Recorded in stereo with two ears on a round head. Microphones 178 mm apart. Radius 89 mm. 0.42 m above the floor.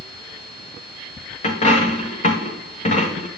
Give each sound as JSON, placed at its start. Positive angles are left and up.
{"t": 1.4, "sound": "a dropped coin", "side_deg": 35, "distance_m": 2.5}